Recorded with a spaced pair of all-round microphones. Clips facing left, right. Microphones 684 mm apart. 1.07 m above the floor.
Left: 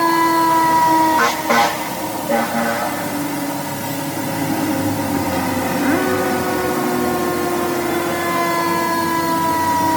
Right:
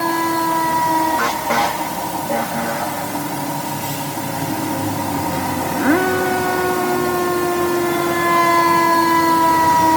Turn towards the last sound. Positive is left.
No sound to turn to.